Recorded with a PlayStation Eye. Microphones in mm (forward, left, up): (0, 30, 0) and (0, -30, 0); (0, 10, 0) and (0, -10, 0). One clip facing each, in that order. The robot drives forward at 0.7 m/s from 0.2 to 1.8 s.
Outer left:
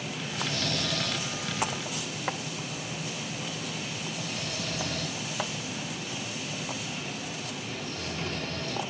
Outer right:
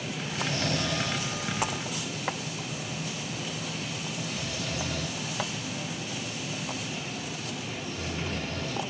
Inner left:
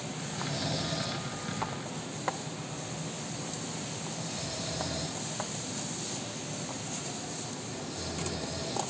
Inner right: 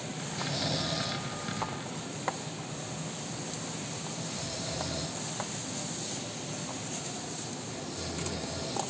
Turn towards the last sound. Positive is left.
turn(degrees=-15)  # may be behind; listen again after turning